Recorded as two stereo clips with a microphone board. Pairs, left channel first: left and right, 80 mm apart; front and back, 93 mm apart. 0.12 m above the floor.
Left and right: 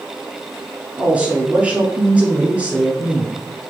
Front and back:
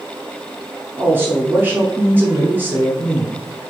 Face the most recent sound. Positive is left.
turn(degrees=-140)